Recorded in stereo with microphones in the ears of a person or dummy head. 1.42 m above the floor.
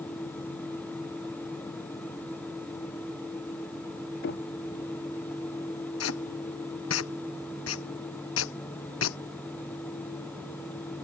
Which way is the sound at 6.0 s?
85° left.